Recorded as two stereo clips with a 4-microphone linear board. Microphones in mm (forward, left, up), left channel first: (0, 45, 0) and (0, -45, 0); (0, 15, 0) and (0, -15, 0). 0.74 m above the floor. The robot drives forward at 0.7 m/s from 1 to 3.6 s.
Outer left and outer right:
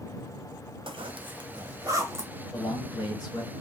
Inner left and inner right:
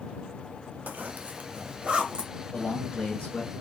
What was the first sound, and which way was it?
A zipper, 70° right (ahead or behind).